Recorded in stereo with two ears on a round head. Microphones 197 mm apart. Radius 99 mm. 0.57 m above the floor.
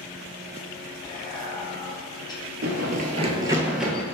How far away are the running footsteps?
About 0.8 m.